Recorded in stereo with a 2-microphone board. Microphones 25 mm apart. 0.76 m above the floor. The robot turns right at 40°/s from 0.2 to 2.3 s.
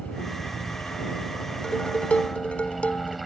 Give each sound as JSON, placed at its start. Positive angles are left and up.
{"t": 0.0, "sound": "a helicopter", "azimuth_deg": 95}
{"t": 1.6, "sound": "dishes clattering", "side_deg": 35}